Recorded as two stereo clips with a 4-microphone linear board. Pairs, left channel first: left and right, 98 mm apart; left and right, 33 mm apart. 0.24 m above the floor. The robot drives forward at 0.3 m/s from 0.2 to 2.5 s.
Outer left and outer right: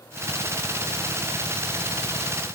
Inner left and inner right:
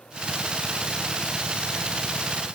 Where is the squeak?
No squeak in this recording.